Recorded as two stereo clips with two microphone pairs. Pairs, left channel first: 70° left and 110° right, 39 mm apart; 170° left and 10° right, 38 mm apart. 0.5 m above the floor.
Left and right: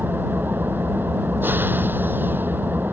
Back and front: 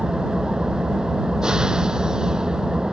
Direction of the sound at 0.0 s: 80° right.